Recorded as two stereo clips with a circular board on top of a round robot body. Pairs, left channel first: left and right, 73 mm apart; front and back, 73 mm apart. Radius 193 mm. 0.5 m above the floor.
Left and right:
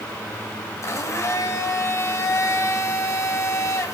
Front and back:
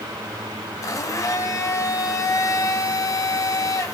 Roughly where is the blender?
Ahead left.